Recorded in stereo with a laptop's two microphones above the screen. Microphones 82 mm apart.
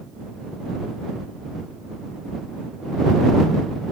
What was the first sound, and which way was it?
Only background noise.